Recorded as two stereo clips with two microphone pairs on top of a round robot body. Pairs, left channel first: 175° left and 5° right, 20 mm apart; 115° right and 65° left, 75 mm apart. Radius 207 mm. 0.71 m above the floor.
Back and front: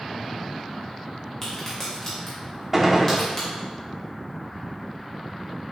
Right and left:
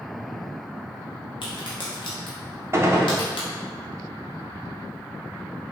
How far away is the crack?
About 0.6 m.